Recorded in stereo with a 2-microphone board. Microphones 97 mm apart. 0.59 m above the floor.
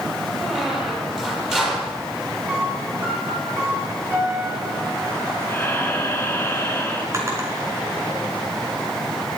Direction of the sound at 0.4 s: 5° right (ahead or behind).